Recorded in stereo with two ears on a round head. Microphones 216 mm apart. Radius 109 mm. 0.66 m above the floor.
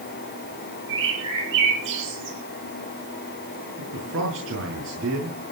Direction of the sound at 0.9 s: 50° right (ahead or behind).